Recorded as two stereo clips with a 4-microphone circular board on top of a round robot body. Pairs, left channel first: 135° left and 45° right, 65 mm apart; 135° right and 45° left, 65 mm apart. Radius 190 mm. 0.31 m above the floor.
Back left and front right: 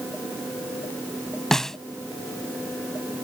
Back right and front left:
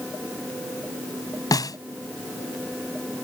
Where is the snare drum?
145° right.